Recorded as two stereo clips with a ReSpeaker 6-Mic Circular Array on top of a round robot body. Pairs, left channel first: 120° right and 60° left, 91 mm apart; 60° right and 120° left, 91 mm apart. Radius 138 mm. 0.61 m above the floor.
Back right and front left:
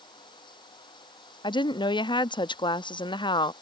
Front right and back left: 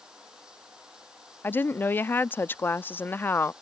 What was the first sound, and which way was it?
Running water, 155° right.